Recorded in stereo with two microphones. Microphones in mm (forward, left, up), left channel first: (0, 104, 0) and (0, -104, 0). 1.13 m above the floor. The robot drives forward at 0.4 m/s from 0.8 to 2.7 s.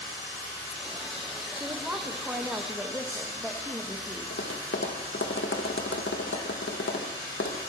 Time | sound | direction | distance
0.0 | running water | 15° left (ahead or behind) | 7.5 m
1.5 | a woman speaking | 10° right (ahead or behind) | 1.0 m
4.3 | tapping | 65° left (ahead or behind) | 1.3 m